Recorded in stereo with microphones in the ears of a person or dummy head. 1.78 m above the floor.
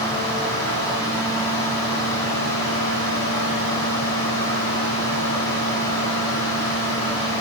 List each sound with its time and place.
0.0 s a fan: 30° left (ahead or behind), 3.5 m